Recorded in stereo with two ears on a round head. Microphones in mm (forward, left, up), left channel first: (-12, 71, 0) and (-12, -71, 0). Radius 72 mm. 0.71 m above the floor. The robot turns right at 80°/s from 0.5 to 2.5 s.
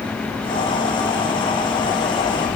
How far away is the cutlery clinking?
No cutlery clinking in this recording.